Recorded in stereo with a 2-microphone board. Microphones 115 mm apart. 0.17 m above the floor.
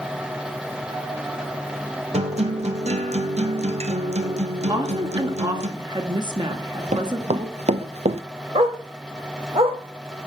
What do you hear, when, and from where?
2.1 s a guitar: 70° right (ahead or behind), 1.5 m
4.7 s a woman speaking: 40° right (ahead or behind), 2.5 m
6.5 s running footsteps: 80° right, 2.0 m; by 8.2 s 70° right (ahead or behind), 1.1 m
8.6 s a dog barking: 55° right (ahead or behind), 2.5 m